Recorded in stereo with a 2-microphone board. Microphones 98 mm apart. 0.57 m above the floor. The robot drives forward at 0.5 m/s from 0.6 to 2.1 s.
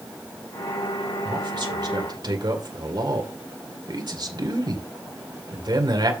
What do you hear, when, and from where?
1.2 s a man speaking: 55° right (ahead or behind), 2.0 m; by 6.1 s 50° right (ahead or behind), 2 m